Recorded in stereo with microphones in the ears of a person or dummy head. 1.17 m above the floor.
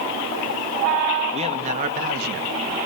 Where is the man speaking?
30° right (ahead or behind), 1.9 m; by 2.8 s 55° right (ahead or behind), 2.5 m.